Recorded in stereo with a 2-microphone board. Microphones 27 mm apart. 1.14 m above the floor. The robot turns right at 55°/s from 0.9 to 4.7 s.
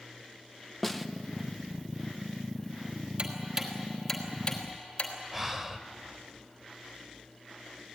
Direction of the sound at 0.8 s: 5° left (ahead or behind).